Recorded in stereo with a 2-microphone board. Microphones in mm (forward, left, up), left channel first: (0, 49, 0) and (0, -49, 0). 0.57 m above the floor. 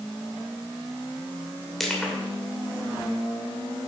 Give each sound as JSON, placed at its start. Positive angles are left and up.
{"t": 1.8, "sound": "crushing", "side_deg": 5, "distance_m": 2.5}